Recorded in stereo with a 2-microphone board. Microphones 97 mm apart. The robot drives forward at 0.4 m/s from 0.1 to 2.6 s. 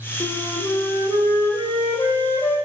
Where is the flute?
50° left (ahead or behind), 5 m; by 2.5 s 45° left (ahead or behind), 6 m.